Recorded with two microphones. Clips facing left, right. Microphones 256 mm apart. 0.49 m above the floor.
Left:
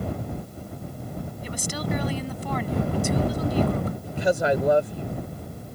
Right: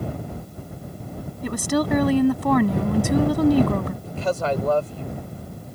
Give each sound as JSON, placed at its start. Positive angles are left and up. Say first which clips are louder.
{"t": 1.4, "sound": "a woman speaking", "louder": "right 10 dB", "side_deg": -65}
{"t": 4.0, "sound": "a woman speaking", "louder": "left 4 dB", "side_deg": 15}